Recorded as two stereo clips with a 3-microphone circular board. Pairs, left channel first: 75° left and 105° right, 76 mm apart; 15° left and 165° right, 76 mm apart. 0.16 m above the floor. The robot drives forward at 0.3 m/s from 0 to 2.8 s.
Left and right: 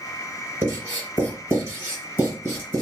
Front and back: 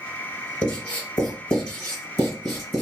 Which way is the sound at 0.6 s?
50° right.